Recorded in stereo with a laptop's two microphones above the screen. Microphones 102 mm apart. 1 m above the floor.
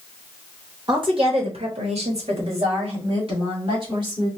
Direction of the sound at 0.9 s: 45° right (ahead or behind).